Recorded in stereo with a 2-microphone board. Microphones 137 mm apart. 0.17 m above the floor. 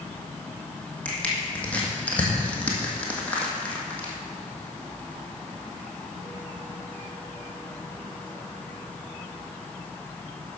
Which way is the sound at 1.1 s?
10° left (ahead or behind).